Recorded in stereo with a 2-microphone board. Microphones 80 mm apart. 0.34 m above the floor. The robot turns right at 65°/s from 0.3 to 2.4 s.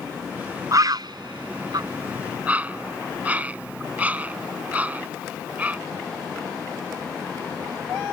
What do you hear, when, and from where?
0.7 s a bird: 45° right (ahead or behind); by 5.8 s 20° right (ahead or behind)